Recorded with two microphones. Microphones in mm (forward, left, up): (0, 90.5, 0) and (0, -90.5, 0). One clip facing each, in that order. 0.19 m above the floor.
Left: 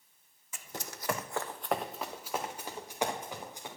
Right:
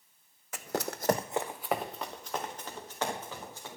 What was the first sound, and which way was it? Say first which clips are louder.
Running footsteps: right 10 dB; 70° right (ahead or behind).